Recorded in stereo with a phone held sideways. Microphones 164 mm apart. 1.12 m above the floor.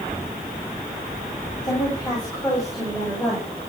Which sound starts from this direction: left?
A woman speaking, at 1.6 s.